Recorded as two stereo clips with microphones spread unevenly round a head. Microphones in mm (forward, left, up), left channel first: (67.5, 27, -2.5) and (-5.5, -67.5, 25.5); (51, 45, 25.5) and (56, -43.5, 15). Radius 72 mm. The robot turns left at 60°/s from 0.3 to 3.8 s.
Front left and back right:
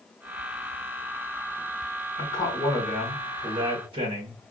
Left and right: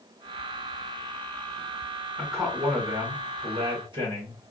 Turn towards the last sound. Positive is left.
turn(degrees=-85)